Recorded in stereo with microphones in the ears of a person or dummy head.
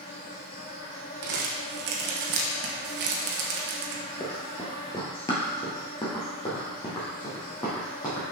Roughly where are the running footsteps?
Centre.